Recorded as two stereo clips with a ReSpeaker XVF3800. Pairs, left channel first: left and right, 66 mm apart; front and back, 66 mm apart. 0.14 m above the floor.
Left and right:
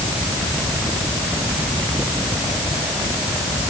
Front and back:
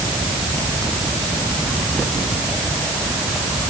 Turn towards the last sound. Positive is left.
No sound to turn to.